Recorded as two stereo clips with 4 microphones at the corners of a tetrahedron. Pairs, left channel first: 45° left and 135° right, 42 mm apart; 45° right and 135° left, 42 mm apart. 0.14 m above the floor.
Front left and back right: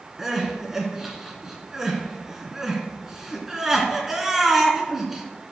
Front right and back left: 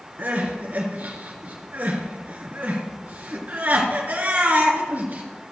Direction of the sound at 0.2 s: 145° left.